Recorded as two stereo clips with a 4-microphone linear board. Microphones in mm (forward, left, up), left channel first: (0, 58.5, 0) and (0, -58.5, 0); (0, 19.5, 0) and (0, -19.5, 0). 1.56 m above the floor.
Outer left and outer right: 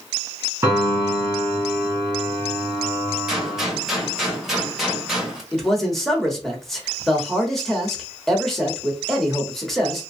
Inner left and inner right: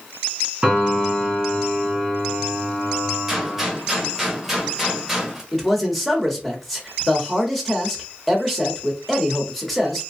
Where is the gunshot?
5° right (ahead or behind), 1.0 m.